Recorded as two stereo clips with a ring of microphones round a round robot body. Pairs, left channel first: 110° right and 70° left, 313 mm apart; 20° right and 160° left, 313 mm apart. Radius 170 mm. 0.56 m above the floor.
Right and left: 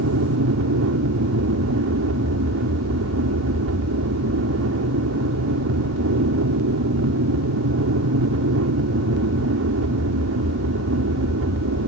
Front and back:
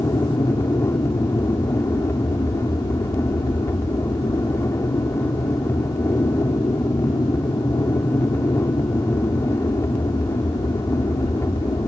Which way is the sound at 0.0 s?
55° left.